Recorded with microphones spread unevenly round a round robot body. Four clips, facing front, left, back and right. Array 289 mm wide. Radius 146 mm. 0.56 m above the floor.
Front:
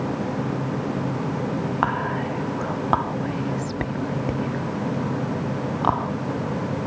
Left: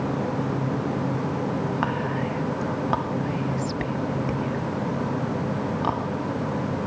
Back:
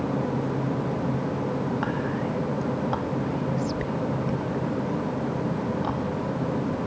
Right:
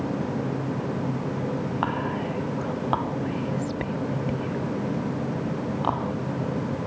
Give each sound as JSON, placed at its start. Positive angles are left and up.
{"t": 1.8, "sound": "whispering", "azimuth_deg": -5}